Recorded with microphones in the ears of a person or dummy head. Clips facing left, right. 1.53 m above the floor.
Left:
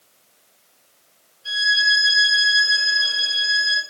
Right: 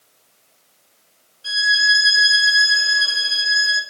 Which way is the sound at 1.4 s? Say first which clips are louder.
Right 2 dB; 85° right.